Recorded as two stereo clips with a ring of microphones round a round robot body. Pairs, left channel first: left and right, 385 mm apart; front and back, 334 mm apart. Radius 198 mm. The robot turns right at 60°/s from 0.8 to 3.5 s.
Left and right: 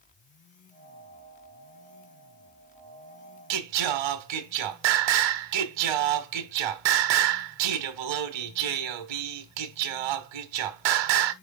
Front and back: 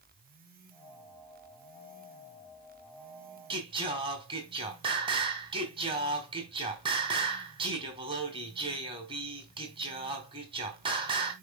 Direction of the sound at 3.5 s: 105° right.